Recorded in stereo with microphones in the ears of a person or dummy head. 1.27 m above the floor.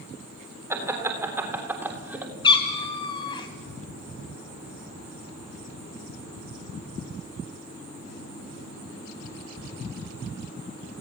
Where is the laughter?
20° right (ahead or behind), 4 m; by 2.3 s 10° right (ahead or behind), 3.5 m.